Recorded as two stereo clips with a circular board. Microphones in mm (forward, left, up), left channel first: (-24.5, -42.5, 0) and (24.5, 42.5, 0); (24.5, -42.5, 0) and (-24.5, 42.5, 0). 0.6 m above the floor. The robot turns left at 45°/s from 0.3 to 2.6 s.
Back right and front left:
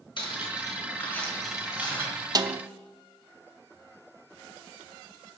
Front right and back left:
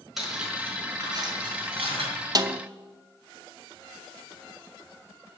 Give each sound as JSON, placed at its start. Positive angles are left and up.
{"t": 0.2, "sound": "cutlery clinking", "azimuth_deg": -155, "distance_m": 4.5}
{"t": 2.4, "sound": "a snare drum", "azimuth_deg": 90, "distance_m": 0.6}